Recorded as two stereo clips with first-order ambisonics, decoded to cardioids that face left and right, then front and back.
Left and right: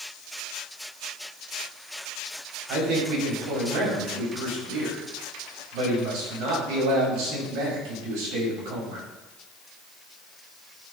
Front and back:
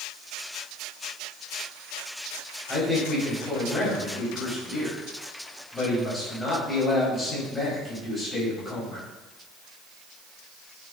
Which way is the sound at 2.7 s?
80° right.